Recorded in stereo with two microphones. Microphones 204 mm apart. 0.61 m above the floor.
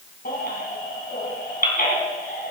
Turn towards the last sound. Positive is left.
turn(degrees=45)  # may be behind; listen again after turning